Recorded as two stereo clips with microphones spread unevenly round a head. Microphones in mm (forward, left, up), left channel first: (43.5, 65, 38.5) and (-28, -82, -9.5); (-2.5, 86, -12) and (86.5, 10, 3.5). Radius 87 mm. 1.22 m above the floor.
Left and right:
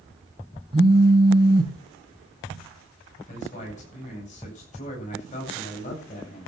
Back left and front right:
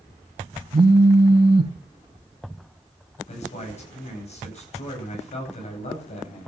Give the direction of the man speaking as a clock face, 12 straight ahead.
8 o'clock.